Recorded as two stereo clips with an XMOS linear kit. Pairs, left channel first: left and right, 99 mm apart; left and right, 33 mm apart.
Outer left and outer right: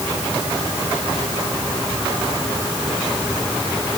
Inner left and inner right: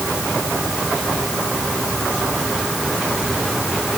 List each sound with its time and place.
Only background noise.